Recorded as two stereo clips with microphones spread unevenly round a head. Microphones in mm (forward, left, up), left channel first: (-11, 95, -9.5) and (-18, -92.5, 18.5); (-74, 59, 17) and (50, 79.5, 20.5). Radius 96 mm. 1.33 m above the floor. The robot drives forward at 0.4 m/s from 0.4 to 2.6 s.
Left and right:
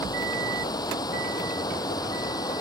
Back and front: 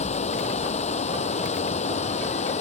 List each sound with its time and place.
0.0 s running water: 160° left